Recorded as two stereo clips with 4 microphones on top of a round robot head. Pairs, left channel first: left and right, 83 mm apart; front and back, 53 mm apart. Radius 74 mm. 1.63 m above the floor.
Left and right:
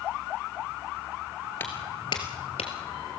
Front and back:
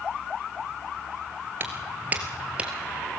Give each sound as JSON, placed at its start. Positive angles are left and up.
{"t": 1.6, "sound": "footsteps", "azimuth_deg": 160, "distance_m": 1.9}